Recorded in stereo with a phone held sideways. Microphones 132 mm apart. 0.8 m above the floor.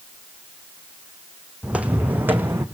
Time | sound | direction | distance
1.6 | footsteps | 10° right (ahead or behind) | 2.5 m